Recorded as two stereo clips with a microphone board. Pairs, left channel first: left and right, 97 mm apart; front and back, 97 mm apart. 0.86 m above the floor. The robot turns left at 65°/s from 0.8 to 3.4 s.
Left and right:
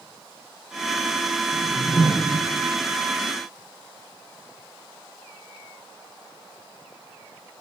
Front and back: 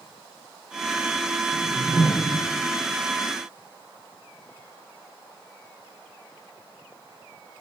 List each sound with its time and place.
1.5 s a whoosh: 95° left, 1.0 m; by 2.4 s 35° left, 1.0 m